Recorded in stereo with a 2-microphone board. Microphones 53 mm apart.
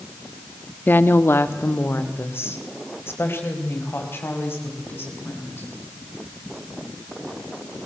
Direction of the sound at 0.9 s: 40° left (ahead or behind).